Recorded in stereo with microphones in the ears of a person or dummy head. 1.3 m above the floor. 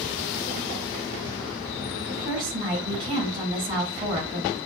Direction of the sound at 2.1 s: 25° right (ahead or behind).